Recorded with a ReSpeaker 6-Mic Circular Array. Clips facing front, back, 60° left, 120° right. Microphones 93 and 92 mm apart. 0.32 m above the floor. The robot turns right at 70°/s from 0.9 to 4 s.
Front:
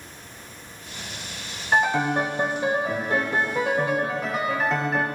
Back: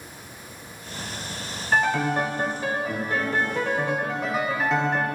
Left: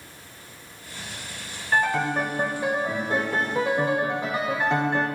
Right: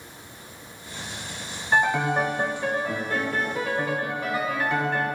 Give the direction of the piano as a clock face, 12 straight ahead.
2 o'clock.